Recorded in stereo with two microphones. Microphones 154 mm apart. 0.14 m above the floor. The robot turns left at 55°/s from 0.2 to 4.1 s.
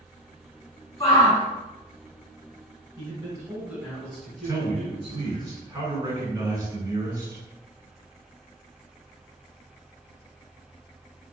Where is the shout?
25° left (ahead or behind), 1.6 m.